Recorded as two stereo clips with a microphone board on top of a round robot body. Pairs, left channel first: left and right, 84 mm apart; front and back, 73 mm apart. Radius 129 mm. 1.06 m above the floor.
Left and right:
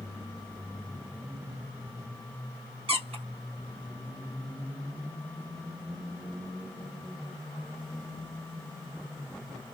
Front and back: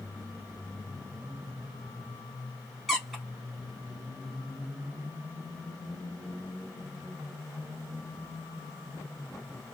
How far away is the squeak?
About 1.1 m.